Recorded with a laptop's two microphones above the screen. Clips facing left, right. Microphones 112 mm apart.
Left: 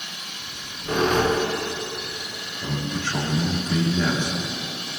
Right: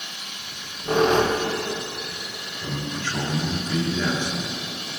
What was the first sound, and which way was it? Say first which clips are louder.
A squeak: right 3 dB; 30° right (ahead or behind).